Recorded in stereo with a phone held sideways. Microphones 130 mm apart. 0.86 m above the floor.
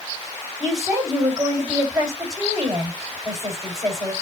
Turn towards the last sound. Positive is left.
turn(degrees=-25)  # may be behind; listen again after turning